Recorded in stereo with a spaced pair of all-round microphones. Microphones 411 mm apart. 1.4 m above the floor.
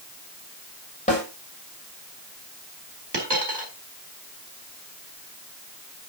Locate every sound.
1.1 s a snare drum: 15° left (ahead or behind), 6 m
3.1 s a dropped coin: 75° right (ahead or behind), 5 m